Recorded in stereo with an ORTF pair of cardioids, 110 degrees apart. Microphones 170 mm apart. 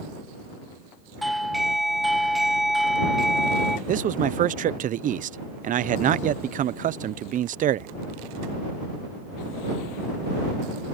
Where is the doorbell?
Straight ahead.